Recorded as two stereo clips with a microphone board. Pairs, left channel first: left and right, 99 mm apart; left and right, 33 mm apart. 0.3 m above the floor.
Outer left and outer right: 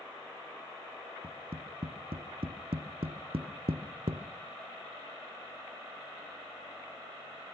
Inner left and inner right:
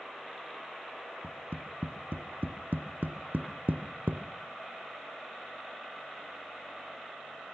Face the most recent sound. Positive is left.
turn(degrees=-80)